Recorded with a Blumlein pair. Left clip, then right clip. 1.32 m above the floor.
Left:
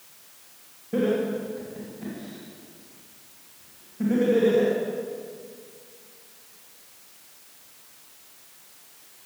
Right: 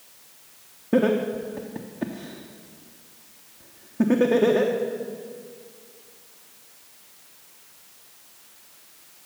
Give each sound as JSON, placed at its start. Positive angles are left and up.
{"t": 0.9, "sound": "laughter", "azimuth_deg": -55, "distance_m": 1.1}